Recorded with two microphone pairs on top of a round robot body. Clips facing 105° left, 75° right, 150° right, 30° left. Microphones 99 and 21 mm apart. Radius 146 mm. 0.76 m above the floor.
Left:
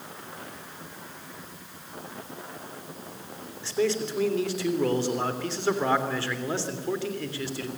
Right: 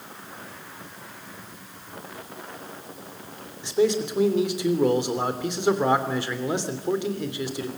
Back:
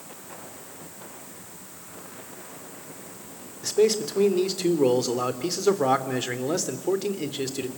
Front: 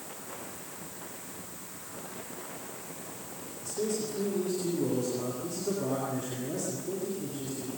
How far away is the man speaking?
About 3.5 m.